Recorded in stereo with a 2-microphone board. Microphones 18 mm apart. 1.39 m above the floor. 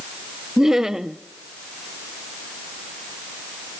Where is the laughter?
20° right (ahead or behind), 1.2 m.